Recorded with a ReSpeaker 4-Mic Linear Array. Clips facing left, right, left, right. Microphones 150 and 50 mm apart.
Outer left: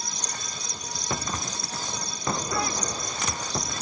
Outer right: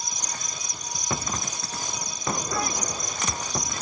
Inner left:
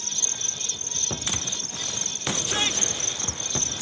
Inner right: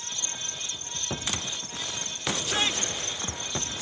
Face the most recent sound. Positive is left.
turn(degrees=65)  # may be behind; listen again after turning